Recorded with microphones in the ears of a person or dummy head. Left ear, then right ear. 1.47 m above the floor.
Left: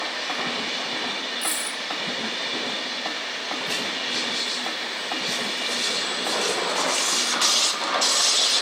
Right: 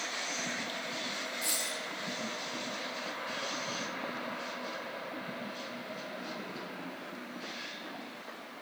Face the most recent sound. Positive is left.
turn(degrees=20)  # may be behind; listen again after turning